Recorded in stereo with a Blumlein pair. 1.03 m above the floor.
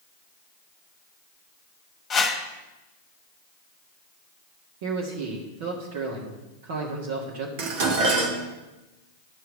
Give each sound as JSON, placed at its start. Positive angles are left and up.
{"t": 2.1, "sound": "a whoosh", "azimuth_deg": 20, "distance_m": 1.7}
{"t": 4.8, "sound": "a man speaking", "azimuth_deg": -50, "distance_m": 1.6}
{"t": 7.6, "sound": "dishes clattering", "azimuth_deg": -50, "distance_m": 1.4}